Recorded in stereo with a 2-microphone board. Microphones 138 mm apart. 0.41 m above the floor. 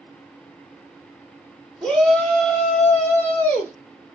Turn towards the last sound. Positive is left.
turn(degrees=15)  # may be behind; listen again after turning